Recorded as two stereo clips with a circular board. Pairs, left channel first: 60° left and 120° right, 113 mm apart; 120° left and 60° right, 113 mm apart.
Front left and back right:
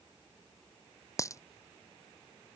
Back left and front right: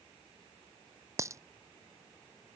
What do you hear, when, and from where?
1.2 s a dropped coin: straight ahead